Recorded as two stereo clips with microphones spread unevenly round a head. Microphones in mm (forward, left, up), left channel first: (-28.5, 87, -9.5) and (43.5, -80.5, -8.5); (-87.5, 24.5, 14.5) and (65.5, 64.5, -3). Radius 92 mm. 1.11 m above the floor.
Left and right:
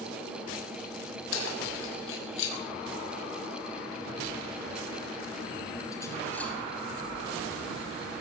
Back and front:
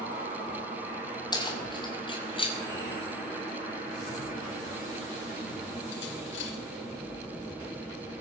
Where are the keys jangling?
130° left, 6 m; by 6.5 s 160° right, 3.5 m.